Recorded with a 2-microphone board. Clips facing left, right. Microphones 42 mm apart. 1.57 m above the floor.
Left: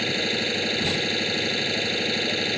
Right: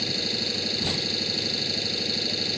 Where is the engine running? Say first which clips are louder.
Left 5 dB; 45° left (ahead or behind).